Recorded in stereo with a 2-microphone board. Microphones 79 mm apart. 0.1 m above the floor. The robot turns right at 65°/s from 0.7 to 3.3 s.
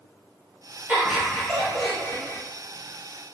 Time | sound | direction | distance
0.9 | laughter | 40° right | 1.5 m